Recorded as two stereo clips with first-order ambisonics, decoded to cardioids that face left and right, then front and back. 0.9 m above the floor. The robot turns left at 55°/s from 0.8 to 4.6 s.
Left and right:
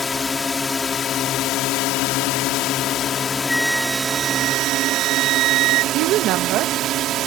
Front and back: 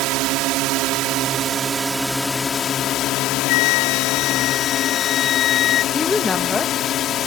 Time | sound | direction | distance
0.0 | a drone | 160° left | ?
3.5 | a flute | 10° left | ?
5.9 | a woman speaking | 75° right | ?